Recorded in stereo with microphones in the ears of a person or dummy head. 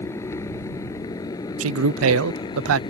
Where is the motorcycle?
15° left (ahead or behind); by 2.9 s 25° left (ahead or behind).